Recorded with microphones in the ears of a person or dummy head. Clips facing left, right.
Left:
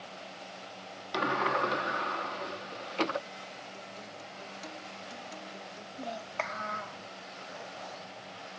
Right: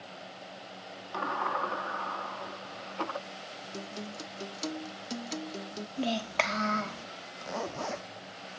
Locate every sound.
1.1 s a sliding door: 25° left (ahead or behind)
3.7 s a guitar: 60° right (ahead or behind)
6.0 s a child speaking: 45° right (ahead or behind)
7.4 s a zipper: 85° right